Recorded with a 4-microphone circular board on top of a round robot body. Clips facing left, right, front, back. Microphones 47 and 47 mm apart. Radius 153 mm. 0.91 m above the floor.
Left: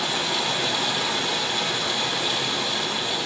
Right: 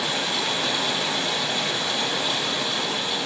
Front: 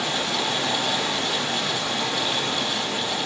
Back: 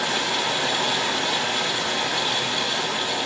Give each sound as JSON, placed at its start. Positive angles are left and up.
{"t": 0.0, "sound": "running water", "azimuth_deg": -160, "distance_m": 1.4}